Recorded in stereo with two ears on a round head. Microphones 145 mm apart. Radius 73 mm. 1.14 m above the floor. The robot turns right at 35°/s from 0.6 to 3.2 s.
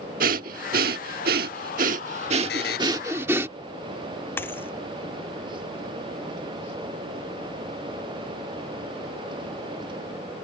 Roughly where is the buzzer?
Left.